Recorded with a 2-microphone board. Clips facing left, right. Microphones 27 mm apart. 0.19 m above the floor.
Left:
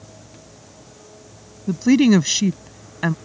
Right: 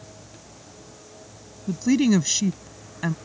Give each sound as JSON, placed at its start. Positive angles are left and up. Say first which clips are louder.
{"t": 1.7, "sound": "a woman speaking", "louder": "left 5 dB", "side_deg": 25}